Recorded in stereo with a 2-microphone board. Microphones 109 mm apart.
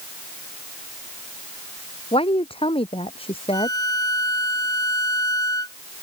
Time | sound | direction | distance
2.1 | a woman speaking | 60° left (ahead or behind) | ?
3.5 | a violin | 35° left (ahead or behind) | ?